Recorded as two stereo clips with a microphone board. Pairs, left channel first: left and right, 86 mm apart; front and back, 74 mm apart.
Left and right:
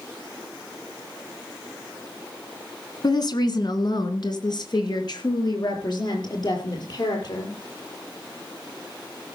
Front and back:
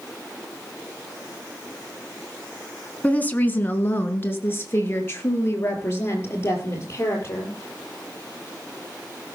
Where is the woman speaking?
65° left, 1.7 m; by 7.5 s 55° left, 5 m.